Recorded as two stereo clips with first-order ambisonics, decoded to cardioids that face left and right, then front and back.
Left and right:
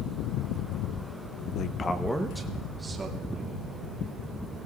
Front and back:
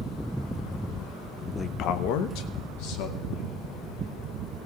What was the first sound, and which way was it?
A man speaking, 70° left.